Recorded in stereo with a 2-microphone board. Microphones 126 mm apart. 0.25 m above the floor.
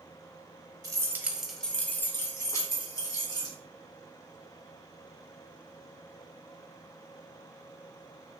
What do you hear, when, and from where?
0.8 s keys jangling: 30° right (ahead or behind), 0.6 m; by 3.5 s 30° left (ahead or behind), 1.8 m